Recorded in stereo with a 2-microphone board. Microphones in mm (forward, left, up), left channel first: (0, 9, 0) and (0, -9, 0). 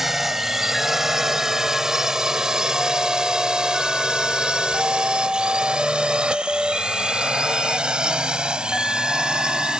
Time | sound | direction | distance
0.0 | a drone | 15° right (ahead or behind) | ?